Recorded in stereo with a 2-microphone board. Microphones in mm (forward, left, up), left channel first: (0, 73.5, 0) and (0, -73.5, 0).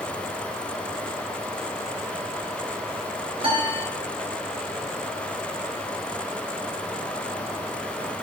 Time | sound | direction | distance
3.4 | a piano | 40° right (ahead or behind) | 2 m